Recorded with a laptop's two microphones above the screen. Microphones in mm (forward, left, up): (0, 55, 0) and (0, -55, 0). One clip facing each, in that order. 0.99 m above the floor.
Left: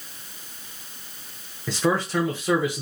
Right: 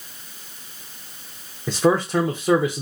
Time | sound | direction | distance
1.7 | a man speaking | 20° right (ahead or behind) | 0.6 m